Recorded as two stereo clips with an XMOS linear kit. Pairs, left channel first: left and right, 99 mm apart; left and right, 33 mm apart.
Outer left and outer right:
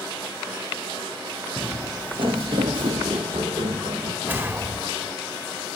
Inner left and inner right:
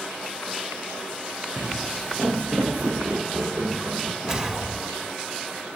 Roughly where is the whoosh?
Centre.